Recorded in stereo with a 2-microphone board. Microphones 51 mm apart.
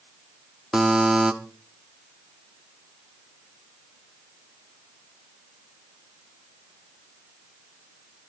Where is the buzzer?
10° right (ahead or behind), 1.8 m.